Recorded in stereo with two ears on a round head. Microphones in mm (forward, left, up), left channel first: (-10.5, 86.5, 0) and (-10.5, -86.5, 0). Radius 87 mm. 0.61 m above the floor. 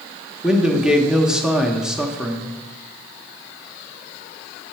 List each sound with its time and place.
0.4 s a man speaking: 5° right (ahead or behind), 0.9 m